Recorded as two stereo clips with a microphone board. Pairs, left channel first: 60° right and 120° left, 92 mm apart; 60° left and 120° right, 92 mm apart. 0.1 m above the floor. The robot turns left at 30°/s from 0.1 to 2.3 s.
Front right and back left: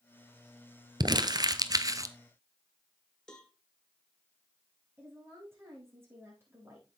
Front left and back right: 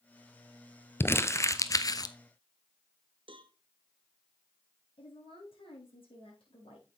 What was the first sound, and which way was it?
Crumpling, 115° left.